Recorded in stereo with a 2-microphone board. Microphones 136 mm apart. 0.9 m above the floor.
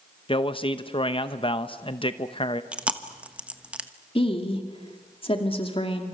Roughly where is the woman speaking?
Left.